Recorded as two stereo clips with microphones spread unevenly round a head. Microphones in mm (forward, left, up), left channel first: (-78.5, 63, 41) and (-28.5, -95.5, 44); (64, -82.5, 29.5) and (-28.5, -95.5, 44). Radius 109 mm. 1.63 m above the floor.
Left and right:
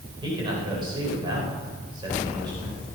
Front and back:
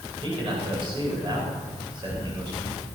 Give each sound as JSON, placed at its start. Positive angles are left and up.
{"t": 0.2, "sound": "a man speaking", "azimuth_deg": -135, "distance_m": 9.5}